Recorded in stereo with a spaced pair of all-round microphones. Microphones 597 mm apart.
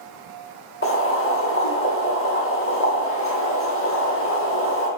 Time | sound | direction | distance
0.8 | boiling | 20° left (ahead or behind) | 1.9 m